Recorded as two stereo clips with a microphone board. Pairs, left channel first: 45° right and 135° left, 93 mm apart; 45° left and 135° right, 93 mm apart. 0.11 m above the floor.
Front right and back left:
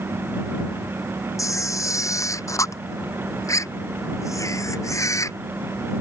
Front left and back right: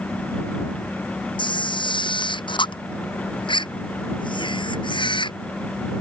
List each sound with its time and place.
1.4 s a camera shutter: 10° left